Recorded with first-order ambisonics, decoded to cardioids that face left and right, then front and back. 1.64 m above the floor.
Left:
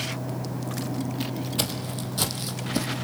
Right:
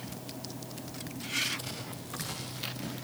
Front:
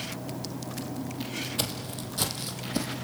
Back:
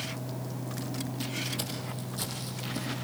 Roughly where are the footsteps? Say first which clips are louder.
Left 11 dB, front 4 dB; ahead left.